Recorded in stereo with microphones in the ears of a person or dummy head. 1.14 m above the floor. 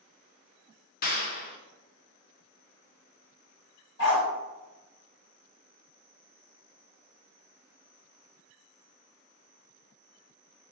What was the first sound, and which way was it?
A clap, 55° left (ahead or behind).